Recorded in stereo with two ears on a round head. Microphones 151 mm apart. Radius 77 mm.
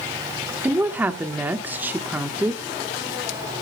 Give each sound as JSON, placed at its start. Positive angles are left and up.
{"t": 0.6, "sound": "a woman speaking", "side_deg": -10, "distance_m": 1.1}